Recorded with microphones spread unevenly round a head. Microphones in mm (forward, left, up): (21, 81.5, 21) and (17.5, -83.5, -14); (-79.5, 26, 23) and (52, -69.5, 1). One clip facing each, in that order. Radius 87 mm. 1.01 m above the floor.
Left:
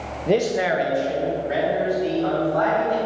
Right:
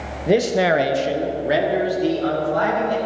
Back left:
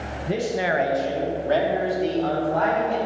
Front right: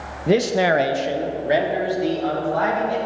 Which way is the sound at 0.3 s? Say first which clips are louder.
Right 3 dB, front right 7 dB; 5° right.